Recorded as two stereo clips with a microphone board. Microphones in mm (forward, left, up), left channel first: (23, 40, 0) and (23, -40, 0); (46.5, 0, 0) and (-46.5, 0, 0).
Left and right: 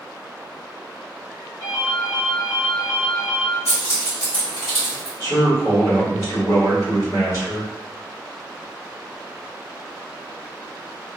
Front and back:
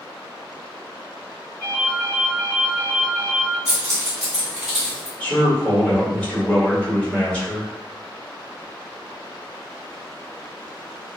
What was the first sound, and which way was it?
A ringtone, 70° left.